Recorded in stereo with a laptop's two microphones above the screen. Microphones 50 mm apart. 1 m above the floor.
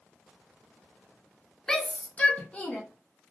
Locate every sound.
1.7 s a shout: 10° left (ahead or behind), 0.5 m; by 2.8 s 30° left (ahead or behind), 0.8 m